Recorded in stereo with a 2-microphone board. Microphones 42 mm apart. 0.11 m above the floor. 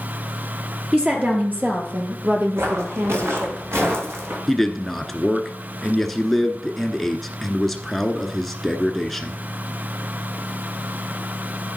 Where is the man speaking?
5° left (ahead or behind), 1.1 m.